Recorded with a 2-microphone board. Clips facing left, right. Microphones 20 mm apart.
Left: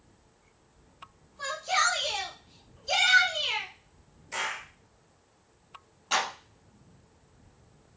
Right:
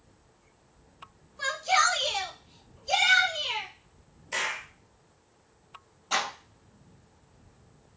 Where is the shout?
25° right (ahead or behind), 1.4 m; by 3.7 s 25° left (ahead or behind), 1.6 m.